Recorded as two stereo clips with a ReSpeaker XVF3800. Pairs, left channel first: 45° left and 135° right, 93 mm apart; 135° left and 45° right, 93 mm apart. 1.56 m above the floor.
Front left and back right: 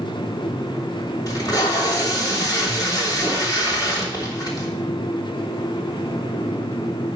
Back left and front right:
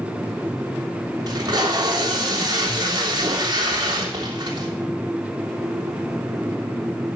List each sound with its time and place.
1.3 s tape being pulled: straight ahead, 3 m